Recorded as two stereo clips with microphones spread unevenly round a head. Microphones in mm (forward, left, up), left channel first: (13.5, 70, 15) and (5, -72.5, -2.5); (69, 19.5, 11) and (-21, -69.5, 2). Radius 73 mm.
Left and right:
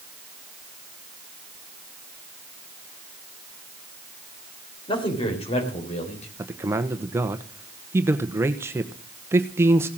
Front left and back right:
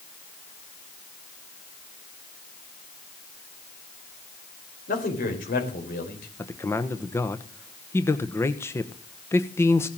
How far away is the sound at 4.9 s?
About 4.5 m.